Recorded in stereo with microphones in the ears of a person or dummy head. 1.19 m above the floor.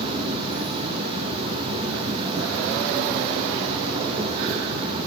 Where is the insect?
20° right (ahead or behind), 1.3 m.